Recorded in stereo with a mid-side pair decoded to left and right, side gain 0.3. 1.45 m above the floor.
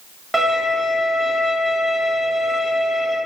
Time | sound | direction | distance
0.3 | a violin | 15° right | 1.3 m